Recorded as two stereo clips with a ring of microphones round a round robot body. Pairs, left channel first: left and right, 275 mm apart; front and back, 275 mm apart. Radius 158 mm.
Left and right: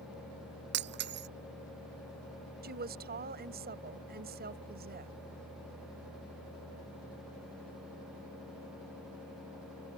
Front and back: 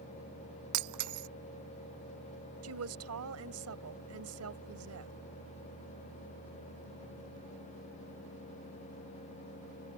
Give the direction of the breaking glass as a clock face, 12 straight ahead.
5 o'clock.